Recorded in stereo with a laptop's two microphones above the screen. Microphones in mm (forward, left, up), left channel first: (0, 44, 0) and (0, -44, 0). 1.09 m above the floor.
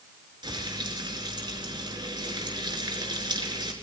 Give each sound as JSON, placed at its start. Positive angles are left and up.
{"t": 0.4, "sound": "frying", "side_deg": -60, "distance_m": 4.5}